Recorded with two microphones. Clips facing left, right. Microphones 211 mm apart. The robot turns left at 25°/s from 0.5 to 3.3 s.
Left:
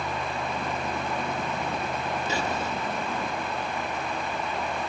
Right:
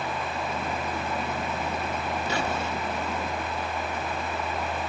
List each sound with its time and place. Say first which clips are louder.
2.3 s whispering: right 1 dB; 25° left (ahead or behind), 8 m; by 2.7 s 10° left (ahead or behind), 8 m